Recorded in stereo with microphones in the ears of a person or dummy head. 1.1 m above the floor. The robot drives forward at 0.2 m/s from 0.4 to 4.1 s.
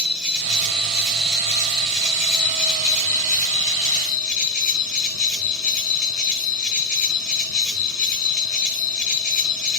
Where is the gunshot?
I don't hear a gunshot.